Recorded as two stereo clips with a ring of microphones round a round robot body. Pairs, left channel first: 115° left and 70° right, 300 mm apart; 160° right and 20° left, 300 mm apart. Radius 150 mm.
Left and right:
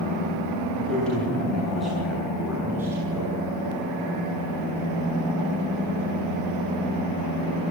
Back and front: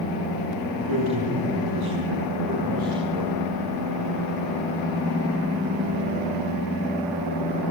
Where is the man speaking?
25° left, 8 m; by 3.4 s 10° left, 5.5 m.